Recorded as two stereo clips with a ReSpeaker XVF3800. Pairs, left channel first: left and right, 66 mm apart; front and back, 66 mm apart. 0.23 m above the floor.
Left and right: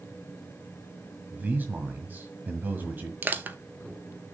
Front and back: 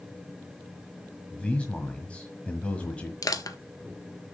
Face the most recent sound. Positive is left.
turn(degrees=-25)